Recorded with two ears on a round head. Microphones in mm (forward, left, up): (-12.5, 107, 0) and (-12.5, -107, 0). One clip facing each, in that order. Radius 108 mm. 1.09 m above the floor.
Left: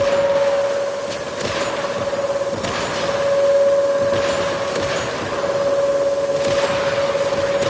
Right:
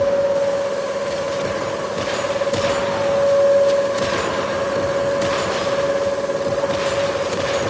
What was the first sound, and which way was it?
Only background noise.